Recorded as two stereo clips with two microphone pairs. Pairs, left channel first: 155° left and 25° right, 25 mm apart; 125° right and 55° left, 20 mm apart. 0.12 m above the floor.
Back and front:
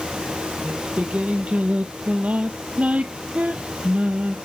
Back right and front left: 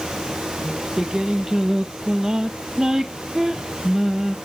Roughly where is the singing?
Ahead.